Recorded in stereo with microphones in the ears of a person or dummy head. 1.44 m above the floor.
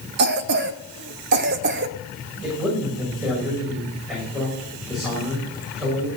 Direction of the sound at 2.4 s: 5° left (ahead or behind).